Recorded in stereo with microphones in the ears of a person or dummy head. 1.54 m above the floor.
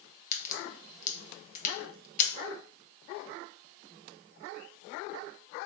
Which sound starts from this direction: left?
A crack, at 0.3 s.